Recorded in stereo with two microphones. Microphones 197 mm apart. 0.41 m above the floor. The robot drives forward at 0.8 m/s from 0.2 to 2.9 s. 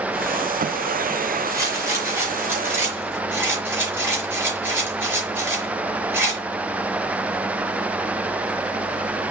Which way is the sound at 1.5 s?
15° right (ahead or behind).